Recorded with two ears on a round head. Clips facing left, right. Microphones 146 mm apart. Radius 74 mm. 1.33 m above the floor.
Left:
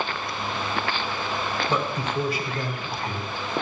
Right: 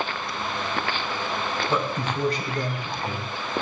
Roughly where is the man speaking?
Centre.